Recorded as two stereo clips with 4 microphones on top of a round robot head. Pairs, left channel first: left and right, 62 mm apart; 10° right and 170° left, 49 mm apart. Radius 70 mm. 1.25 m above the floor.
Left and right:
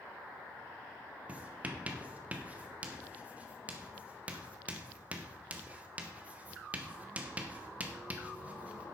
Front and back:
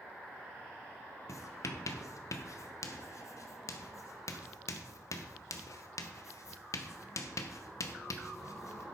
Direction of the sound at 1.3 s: 20° right.